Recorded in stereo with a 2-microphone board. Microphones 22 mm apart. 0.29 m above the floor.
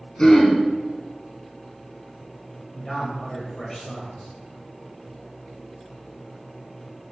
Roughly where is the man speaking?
Centre.